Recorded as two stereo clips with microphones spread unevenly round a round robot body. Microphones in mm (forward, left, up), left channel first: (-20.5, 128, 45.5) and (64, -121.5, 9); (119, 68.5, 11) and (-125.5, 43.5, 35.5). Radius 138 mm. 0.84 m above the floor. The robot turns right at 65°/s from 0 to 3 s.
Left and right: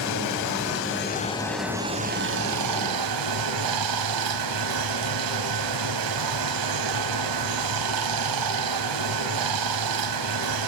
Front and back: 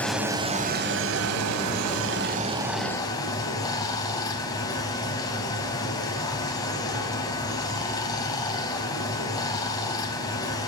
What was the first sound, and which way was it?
Running water, 90° left.